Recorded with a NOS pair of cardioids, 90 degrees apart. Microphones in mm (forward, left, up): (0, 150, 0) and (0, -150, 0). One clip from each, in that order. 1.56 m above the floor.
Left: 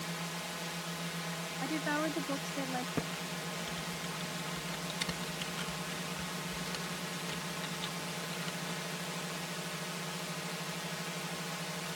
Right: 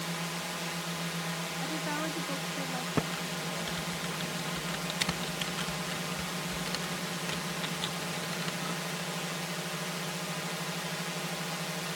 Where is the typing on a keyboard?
35° right.